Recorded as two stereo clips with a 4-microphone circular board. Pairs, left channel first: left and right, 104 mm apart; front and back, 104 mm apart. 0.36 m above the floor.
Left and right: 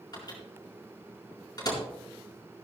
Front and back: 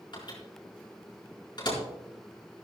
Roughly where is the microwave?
Ahead left.